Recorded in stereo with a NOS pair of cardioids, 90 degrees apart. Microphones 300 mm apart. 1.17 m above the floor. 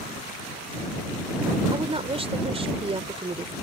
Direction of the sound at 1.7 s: 20° right.